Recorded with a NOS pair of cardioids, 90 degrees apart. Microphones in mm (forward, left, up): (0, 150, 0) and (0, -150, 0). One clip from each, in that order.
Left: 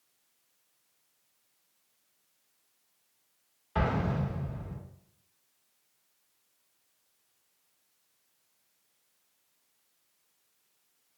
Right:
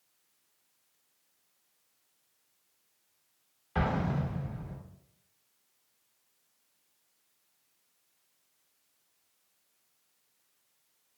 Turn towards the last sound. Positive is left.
turn(degrees=0)